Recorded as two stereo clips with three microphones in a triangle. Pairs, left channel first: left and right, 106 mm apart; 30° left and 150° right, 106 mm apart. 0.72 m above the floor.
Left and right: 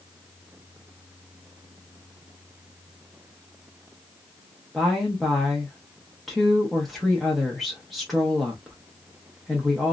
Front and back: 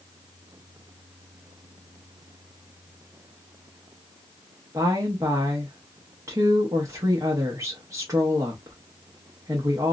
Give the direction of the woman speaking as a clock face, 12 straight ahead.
6 o'clock.